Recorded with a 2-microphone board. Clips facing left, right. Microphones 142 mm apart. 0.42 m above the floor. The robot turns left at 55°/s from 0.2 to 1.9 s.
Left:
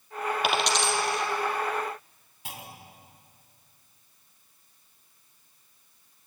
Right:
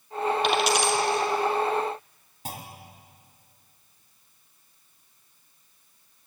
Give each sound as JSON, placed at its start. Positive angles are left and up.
{"t": 0.4, "sound": "a dropped coin", "side_deg": 5, "distance_m": 3.0}
{"t": 2.5, "sound": "a clunk", "side_deg": -40, "distance_m": 2.5}